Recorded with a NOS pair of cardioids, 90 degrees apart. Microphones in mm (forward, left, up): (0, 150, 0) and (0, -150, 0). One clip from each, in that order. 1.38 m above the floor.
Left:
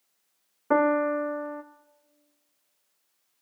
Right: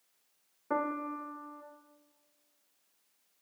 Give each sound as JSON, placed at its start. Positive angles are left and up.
{"t": 0.7, "sound": "a piano", "azimuth_deg": 40, "distance_m": 0.6}